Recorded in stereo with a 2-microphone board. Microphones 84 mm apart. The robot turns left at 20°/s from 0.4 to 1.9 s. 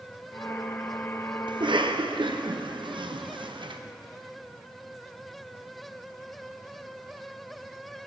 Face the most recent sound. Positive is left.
turn(degrees=-70)  # may be behind; listen again after turning